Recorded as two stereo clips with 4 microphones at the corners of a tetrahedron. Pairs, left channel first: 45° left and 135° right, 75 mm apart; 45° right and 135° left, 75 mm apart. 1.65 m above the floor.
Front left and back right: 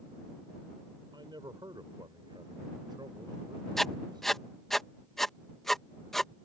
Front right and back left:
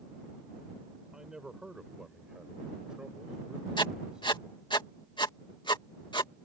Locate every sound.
1.1 s a man speaking: 145° right
3.8 s writing: 40° right